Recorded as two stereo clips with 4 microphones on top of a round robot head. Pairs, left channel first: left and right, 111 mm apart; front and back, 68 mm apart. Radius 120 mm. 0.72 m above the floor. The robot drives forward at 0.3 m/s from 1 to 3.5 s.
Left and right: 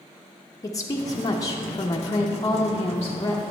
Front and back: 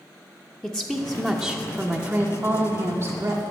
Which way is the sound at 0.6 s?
75° left.